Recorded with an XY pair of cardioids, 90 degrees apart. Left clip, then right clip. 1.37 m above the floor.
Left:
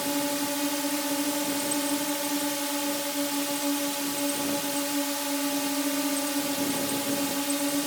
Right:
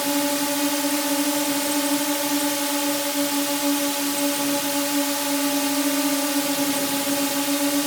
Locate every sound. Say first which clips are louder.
0.0 s a drone: right 6 dB; 50° right